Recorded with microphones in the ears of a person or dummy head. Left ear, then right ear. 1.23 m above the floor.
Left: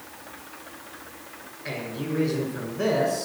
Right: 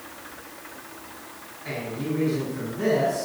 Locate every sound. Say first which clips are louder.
1.6 s a man speaking: right 1 dB; 20° left (ahead or behind), 5 m